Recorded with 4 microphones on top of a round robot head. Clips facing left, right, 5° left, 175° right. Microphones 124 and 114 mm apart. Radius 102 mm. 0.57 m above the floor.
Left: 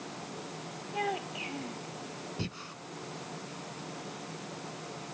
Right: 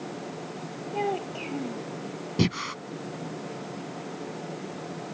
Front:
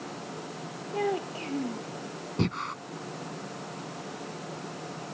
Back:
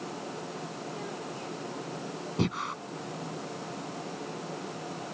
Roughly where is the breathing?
Right.